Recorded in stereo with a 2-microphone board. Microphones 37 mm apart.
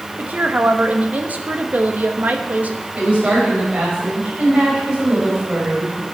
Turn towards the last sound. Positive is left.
turn(degrees=-25)  # may be behind; listen again after turning